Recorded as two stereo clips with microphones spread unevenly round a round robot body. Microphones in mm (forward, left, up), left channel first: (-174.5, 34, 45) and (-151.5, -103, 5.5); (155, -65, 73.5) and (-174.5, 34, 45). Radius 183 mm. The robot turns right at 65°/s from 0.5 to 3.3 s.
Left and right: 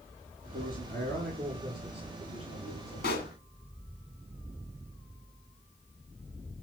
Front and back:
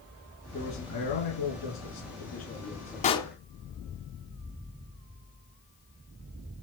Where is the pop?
55° left, 1.7 m; by 3.3 s 70° left, 1.7 m.